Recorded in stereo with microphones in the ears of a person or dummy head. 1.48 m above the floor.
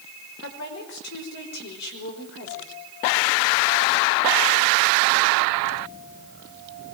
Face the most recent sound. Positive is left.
turn(degrees=65)  # may be behind; listen again after turning